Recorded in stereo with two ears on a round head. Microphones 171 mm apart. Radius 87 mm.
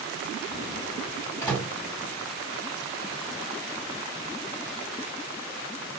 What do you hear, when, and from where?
1.4 s a microwave: 15° left (ahead or behind), 1.7 m